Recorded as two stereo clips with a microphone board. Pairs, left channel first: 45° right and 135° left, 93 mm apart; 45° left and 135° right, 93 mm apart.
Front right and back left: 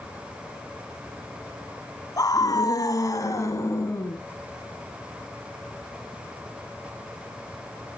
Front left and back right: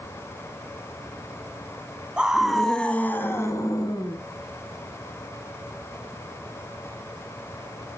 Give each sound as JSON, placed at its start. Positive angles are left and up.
{"t": 2.2, "sound": "a scream", "azimuth_deg": -60, "distance_m": 1.8}